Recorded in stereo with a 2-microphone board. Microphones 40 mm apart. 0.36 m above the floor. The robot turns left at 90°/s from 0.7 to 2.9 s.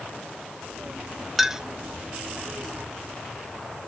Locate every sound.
1.4 s a clink: 5° right (ahead or behind), 0.7 m; by 1.6 s 15° right (ahead or behind), 0.7 m